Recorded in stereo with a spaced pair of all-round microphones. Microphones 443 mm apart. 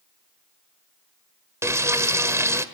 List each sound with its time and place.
1.6 s frying: 5° right (ahead or behind), 1.5 m